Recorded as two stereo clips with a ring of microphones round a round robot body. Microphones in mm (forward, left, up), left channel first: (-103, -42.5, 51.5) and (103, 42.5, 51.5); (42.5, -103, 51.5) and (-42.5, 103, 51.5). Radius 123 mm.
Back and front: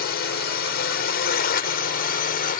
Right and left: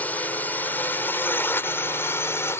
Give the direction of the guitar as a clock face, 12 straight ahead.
No guitar in this recording.